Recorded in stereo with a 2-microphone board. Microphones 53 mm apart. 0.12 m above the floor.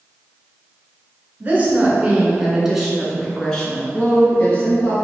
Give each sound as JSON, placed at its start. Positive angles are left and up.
{"t": 1.4, "sound": "a woman speaking", "side_deg": -35, "distance_m": 1.3}